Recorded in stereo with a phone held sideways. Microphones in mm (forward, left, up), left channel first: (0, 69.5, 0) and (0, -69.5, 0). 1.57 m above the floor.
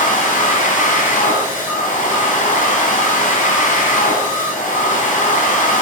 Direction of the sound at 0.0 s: 70° left (ahead or behind).